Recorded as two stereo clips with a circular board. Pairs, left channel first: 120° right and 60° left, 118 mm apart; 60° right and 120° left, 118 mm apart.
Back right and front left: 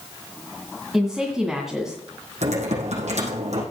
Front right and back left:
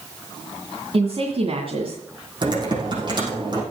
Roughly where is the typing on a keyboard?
Left.